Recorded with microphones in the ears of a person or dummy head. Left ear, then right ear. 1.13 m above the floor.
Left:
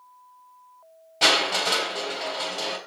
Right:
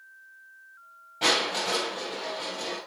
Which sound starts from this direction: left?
Crushing, at 1.2 s.